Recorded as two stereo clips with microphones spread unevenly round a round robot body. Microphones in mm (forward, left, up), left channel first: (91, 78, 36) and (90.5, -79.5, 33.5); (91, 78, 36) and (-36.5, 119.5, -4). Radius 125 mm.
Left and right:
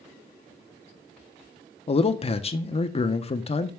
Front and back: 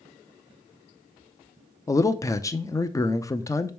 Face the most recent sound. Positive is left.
turn(degrees=60)